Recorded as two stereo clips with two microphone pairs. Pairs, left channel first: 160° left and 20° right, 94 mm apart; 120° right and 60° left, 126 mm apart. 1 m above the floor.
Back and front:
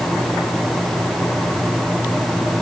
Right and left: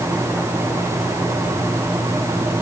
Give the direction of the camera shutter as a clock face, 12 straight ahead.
I don't hear a camera shutter.